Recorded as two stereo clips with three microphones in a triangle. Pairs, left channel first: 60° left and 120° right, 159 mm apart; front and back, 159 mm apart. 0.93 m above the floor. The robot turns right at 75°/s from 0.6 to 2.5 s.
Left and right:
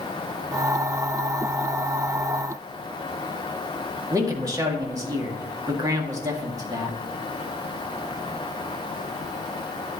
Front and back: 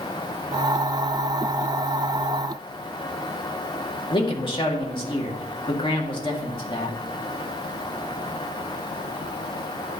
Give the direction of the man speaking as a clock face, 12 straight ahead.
2 o'clock.